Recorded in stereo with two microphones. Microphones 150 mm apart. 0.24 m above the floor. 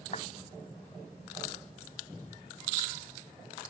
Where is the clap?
50° left (ahead or behind).